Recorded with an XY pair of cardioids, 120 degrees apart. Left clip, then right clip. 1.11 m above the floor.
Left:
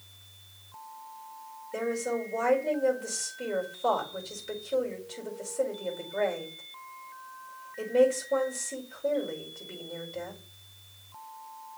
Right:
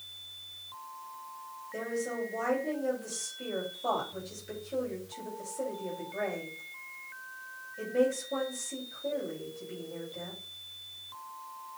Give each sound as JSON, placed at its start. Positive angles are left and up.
{"t": 1.7, "sound": "a woman speaking", "azimuth_deg": 35, "distance_m": 5.0}